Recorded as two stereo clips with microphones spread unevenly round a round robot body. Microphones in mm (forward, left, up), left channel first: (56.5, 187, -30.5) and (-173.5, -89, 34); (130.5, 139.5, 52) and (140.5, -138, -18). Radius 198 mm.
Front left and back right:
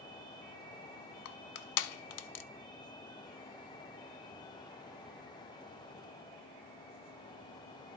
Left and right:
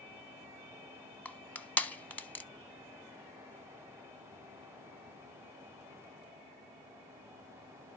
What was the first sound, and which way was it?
Crushing, 15° left.